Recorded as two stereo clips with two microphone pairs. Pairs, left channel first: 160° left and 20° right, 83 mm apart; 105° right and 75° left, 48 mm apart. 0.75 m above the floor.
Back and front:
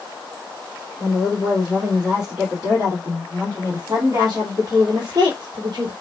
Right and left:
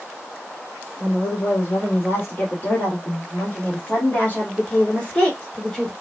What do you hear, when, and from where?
1.0 s a woman speaking: 110° right, 3 m; by 5.9 s 35° right, 2 m